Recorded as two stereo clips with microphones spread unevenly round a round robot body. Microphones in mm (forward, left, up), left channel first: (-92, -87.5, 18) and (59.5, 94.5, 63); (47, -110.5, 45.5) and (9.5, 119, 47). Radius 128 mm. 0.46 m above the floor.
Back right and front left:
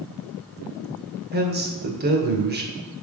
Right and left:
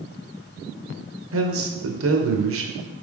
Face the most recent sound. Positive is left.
turn(degrees=100)